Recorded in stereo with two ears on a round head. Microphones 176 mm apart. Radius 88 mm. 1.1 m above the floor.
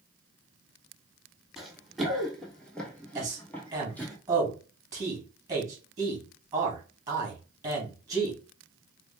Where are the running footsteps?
Centre (ahead or behind), 1.5 m; by 4.2 s 10° left (ahead or behind), 1.7 m.